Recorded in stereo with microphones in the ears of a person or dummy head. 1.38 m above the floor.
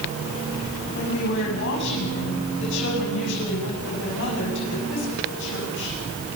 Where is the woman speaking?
65° left (ahead or behind), 9 m.